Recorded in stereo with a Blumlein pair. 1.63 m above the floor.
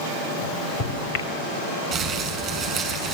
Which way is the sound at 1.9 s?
30° right.